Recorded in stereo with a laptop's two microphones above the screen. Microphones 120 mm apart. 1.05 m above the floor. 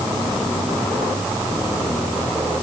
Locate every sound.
Only background noise.